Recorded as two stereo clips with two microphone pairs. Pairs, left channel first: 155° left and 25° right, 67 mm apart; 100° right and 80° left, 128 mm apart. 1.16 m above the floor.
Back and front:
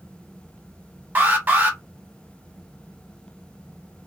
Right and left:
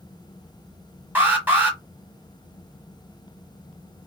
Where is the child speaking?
No child speaking in this recording.